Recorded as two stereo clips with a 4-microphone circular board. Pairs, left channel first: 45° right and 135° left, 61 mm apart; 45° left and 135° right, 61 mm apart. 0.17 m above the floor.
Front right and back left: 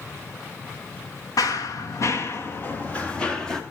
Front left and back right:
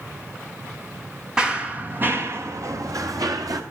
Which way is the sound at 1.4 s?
55° right.